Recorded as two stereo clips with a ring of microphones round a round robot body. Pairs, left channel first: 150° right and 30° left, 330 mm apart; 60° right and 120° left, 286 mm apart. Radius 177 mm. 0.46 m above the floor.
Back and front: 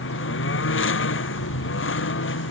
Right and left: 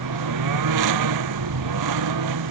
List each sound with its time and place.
0.0 s a lawn mower: 155° left